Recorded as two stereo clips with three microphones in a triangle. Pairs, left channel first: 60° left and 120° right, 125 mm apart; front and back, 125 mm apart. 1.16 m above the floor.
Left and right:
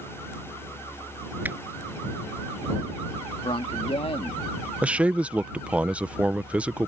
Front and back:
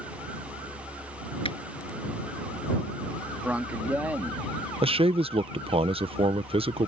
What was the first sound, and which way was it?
A finger snap, 40° right.